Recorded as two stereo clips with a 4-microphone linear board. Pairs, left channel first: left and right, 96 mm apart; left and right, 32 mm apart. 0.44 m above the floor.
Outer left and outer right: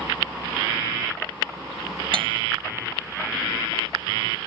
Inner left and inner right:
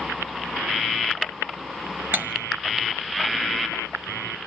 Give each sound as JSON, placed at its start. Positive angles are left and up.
{"t": 2.1, "sound": "cutlery clinking", "side_deg": -75, "distance_m": 1.2}